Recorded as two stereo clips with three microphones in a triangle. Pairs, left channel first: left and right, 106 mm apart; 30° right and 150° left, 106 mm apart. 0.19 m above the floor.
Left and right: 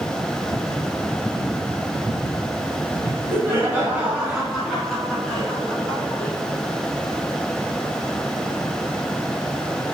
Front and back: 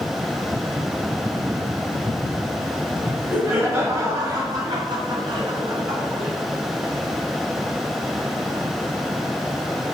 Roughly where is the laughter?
Behind right.